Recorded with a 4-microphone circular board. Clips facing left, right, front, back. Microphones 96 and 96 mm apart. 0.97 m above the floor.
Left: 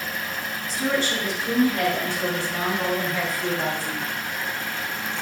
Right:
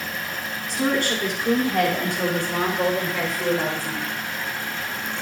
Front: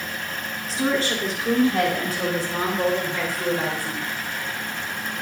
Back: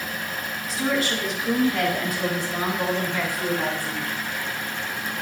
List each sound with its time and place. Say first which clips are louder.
0.7 s a woman speaking: right 2 dB, front 2 dB; 55° right, 2.5 m